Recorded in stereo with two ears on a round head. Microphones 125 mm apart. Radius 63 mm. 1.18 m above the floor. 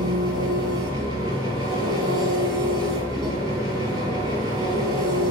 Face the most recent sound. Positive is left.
turn(degrees=-25)  # may be behind; listen again after turning